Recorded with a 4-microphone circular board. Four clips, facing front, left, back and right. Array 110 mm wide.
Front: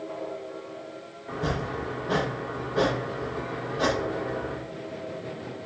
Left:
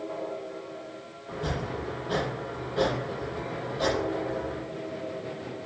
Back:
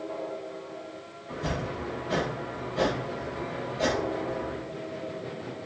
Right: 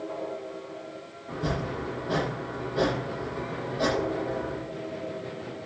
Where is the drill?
No drill in this recording.